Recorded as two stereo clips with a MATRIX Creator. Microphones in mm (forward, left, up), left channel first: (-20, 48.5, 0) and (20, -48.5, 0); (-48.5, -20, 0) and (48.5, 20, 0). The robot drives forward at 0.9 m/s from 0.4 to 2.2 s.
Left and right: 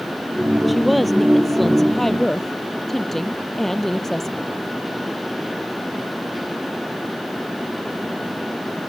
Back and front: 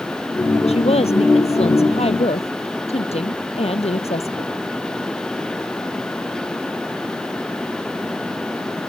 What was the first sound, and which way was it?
A woman speaking, 155° right.